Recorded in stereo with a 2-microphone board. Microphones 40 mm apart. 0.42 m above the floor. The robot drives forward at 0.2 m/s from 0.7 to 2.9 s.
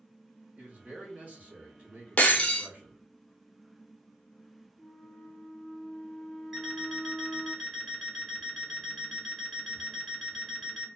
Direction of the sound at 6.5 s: Centre (ahead or behind).